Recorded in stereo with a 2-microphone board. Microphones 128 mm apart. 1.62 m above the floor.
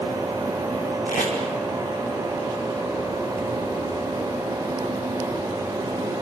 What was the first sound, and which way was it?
Tape being pulled, 85° left.